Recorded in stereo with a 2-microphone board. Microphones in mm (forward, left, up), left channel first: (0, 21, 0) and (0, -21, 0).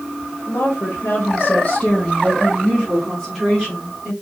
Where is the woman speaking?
60° left (ahead or behind), 1.0 m; by 4.1 s 15° right (ahead or behind), 2 m.